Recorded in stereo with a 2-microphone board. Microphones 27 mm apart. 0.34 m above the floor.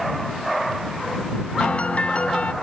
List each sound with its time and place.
1.6 s a piano: 50° left (ahead or behind)